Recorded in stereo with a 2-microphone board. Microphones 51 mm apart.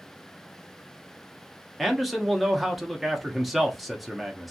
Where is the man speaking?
Centre (ahead or behind), 0.8 m.